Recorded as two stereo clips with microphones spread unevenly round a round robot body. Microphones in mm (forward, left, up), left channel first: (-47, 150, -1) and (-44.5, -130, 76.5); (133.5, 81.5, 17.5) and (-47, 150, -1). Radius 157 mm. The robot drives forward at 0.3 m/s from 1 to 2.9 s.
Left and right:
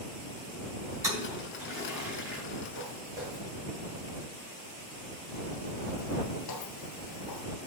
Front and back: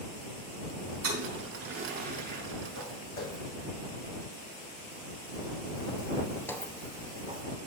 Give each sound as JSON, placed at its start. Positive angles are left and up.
{"t": 1.0, "sound": "a toilet flushing", "azimuth_deg": -170, "distance_m": 3.5}
{"t": 2.8, "sound": "footsteps", "azimuth_deg": -25, "distance_m": 4.0}